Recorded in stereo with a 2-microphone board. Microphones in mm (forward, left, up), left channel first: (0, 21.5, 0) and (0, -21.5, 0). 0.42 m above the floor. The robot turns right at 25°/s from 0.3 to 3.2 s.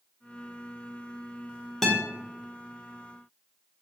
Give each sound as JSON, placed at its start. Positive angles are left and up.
{"t": 1.8, "sound": "a guitar", "side_deg": 5, "distance_m": 0.6}